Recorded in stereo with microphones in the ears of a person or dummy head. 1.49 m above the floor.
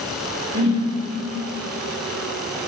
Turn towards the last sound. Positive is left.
turn(degrees=-45)  # may be behind; listen again after turning